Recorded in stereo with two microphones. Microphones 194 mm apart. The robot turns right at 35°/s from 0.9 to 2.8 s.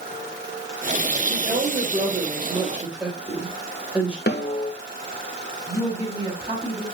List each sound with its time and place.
1.3 s a woman speaking: 60° right, 3.5 m; by 4.2 s 5° right, 3.5 m
4.3 s a snare drum: 65° left (ahead or behind), 1.5 m
5.7 s a woman speaking: 20° right (ahead or behind), 3.5 m